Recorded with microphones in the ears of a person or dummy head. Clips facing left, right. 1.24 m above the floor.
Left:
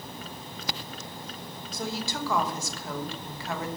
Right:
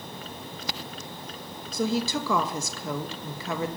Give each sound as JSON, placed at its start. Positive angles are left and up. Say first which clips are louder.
{"t": 1.7, "sound": "a woman speaking", "louder": "right 8 dB", "side_deg": -65, "distance_m": 1.2}